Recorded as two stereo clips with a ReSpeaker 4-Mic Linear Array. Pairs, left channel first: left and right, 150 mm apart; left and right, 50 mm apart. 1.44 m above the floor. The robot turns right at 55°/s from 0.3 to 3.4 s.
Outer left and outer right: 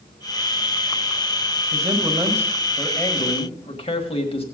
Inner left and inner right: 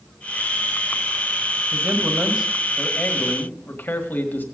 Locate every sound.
1.7 s a man speaking: 50° right, 1.7 m; by 4.4 s 40° left, 1.7 m